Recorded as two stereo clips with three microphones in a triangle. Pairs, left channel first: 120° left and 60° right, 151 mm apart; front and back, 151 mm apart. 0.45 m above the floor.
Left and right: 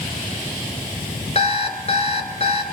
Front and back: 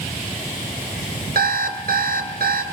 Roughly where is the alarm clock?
Behind.